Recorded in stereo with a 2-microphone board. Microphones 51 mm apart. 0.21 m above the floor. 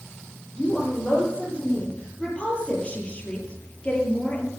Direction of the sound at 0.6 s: 20° left (ahead or behind).